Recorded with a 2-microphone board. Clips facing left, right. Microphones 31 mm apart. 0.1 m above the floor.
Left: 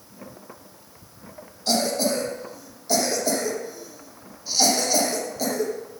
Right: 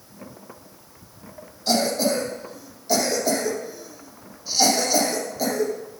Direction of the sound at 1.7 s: Centre (ahead or behind).